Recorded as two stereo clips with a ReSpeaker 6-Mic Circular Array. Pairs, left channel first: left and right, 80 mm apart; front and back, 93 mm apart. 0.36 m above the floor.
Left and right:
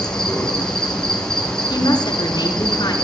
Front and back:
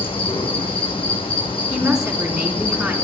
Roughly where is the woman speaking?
Left.